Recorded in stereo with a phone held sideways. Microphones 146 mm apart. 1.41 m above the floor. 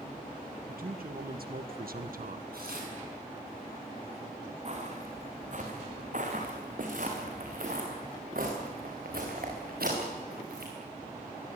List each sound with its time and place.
0.7 s a man speaking: 75° right (ahead or behind), 2.5 m; by 2.4 s 60° right (ahead or behind), 1.2 m
2.5 s tearing paper: 85° right, 8.5 m
4.7 s footsteps: 50° right (ahead or behind), 5.5 m; by 10.7 s 80° right, 8 m